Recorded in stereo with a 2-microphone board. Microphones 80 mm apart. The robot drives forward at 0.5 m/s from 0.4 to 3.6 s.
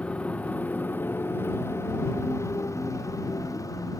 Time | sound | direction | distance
0.0 | a motorcycle | 15° left (ahead or behind) | ?